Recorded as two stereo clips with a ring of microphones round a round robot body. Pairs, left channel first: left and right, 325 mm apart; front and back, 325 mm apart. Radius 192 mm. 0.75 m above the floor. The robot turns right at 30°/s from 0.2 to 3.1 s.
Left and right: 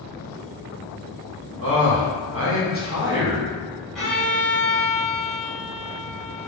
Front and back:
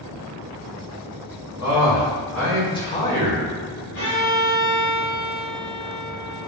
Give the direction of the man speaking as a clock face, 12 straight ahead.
3 o'clock.